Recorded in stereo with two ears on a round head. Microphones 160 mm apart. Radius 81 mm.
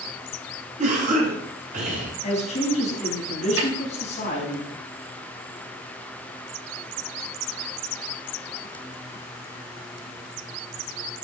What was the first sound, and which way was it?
A cough, 40° right (ahead or behind).